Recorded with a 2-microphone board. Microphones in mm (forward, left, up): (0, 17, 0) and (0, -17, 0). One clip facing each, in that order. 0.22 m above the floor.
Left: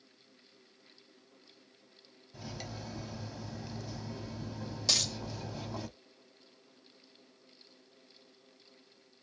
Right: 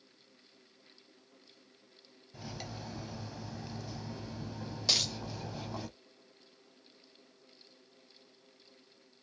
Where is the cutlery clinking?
Centre (ahead or behind), 0.6 m.